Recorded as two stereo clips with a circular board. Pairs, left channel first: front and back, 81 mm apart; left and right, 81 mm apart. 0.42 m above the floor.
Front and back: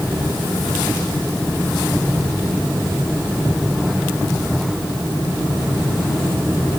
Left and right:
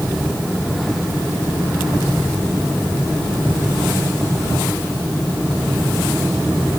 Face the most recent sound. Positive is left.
No sound to turn to.